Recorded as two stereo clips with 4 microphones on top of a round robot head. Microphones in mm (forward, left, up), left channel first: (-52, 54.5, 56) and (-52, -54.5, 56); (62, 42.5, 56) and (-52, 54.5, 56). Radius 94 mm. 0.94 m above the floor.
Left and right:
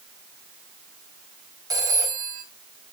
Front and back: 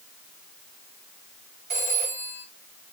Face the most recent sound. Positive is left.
turn(degrees=-145)